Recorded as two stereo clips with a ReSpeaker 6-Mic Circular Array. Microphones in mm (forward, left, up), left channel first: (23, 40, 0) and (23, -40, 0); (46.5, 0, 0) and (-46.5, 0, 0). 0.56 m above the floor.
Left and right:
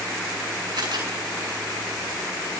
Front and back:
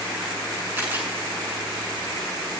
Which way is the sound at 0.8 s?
110° right.